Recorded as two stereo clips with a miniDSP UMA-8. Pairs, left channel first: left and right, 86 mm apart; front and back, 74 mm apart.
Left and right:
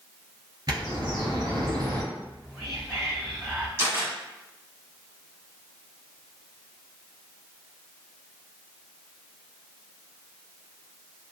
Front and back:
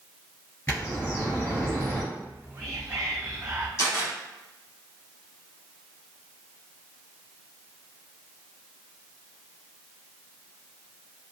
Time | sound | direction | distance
0.7 | a bird | 55° right | 1.9 m
2.1 | whispering | 170° right | 1.9 m
3.8 | a camera shutter | 40° right | 1.6 m